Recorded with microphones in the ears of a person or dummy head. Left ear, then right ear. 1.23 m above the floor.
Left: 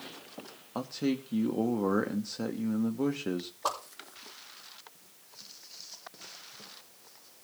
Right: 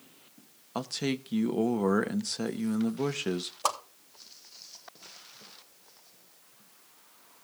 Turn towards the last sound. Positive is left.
turn(degrees=-65)  # may be behind; listen again after turning